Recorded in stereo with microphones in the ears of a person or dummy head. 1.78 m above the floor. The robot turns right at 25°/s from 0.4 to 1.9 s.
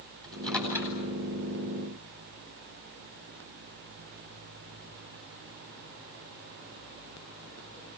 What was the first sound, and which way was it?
A microwave, centre (ahead or behind).